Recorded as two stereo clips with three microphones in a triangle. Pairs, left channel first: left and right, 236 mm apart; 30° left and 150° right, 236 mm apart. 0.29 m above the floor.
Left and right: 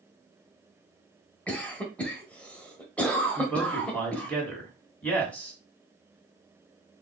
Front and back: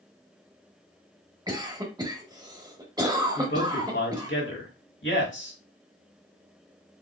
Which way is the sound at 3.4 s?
10° left.